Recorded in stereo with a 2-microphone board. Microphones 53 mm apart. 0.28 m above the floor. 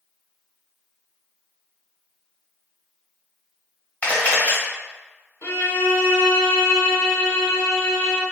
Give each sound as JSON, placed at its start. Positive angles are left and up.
{"t": 4.0, "sound": "a camera shutter", "side_deg": 30, "distance_m": 1.3}
{"t": 5.4, "sound": "a violin", "side_deg": 75, "distance_m": 0.6}